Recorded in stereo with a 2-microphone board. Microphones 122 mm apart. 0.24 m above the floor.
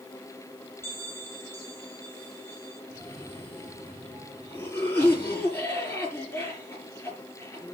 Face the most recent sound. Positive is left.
turn(degrees=15)  # may be behind; listen again after turning